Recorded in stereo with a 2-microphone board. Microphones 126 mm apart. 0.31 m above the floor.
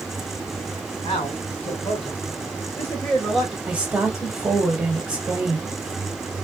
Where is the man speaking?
60° left (ahead or behind), 3 m; by 3.6 s 10° right (ahead or behind), 1.6 m.